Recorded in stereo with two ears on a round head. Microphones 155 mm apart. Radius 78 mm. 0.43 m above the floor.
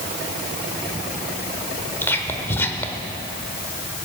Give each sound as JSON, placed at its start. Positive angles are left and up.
{"t": 2.0, "sound": "whispering", "side_deg": 10, "distance_m": 1.1}